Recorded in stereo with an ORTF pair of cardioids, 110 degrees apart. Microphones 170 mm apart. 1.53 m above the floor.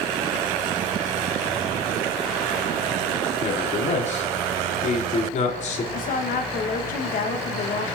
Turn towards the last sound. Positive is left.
turn(degrees=60)